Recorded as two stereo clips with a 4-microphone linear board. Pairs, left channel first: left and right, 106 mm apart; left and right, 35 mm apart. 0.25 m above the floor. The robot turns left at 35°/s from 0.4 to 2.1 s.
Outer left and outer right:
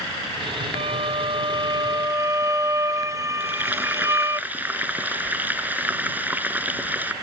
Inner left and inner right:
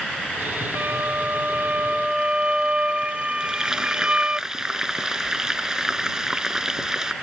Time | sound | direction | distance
0.8 | a violin | 105° right | ?
3.4 | frying | 15° right (ahead or behind) | ?